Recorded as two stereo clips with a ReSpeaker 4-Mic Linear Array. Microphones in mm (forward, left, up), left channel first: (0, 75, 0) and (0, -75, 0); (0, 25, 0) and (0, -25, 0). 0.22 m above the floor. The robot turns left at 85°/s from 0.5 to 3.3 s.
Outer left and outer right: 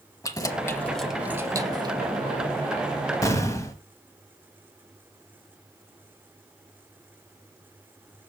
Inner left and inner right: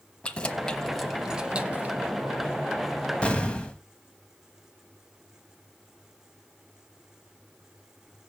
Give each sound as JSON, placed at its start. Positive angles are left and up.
{"t": 0.2, "sound": "keys jangling", "side_deg": 20, "distance_m": 0.9}
{"t": 3.2, "sound": "an explosion", "side_deg": 20, "distance_m": 1.3}